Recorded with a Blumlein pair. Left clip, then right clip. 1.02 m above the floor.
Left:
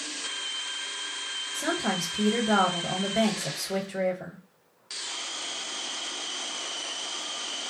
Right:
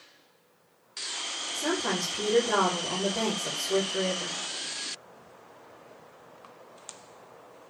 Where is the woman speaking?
15° left, 0.7 m.